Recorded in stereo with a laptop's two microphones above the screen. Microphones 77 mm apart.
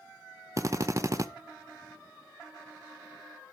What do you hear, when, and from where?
0.6 s a drill: 40° right (ahead or behind), 0.5 m